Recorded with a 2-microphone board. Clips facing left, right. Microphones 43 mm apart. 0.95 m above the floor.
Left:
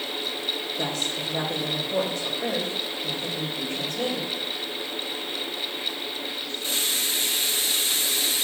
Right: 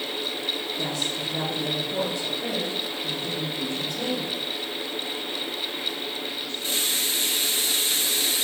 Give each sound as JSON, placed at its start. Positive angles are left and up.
{"t": 0.8, "sound": "a woman speaking", "side_deg": 50, "distance_m": 4.0}